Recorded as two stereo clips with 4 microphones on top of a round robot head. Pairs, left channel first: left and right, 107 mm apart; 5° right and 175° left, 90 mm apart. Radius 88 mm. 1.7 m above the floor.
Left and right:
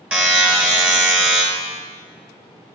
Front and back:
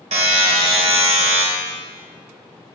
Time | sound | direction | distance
0.1 | a buzzer | 165° right | 1.2 m